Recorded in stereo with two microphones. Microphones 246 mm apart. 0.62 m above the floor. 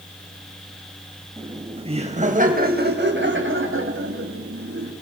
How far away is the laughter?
About 3.5 m.